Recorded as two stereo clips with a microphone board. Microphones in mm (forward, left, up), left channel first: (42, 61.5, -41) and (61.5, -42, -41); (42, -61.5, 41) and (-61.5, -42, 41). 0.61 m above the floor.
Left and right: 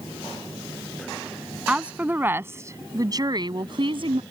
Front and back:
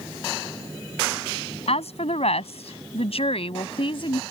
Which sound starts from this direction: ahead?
A woman speaking, at 1.7 s.